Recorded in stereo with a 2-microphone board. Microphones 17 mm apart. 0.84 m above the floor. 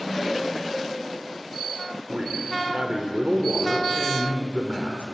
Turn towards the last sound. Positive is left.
turn(degrees=-75)  # may be behind; listen again after turning